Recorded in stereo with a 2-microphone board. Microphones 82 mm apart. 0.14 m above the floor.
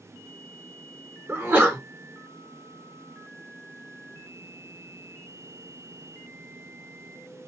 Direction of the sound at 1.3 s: 25° right (ahead or behind).